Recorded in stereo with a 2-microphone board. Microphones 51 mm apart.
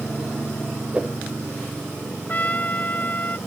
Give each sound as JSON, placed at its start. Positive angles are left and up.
{"t": 0.9, "sound": "a whoosh", "side_deg": -20}
{"t": 2.3, "sound": "a trumpet", "side_deg": 35}